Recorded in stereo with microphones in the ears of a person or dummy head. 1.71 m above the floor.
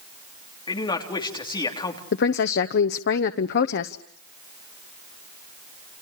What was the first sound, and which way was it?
A man speaking, 15° left (ahead or behind).